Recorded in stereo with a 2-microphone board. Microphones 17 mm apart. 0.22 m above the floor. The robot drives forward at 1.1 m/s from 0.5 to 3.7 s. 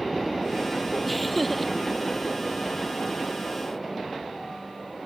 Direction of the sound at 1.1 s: Centre (ahead or behind).